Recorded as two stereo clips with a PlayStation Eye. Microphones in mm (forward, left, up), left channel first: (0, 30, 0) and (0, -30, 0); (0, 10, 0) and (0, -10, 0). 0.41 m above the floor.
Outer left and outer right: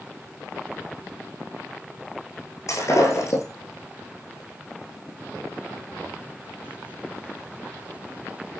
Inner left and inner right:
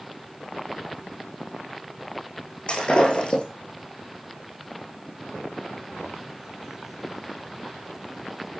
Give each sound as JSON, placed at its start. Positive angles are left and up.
{"t": 2.7, "sound": "breaking glass", "side_deg": 55, "distance_m": 5.5}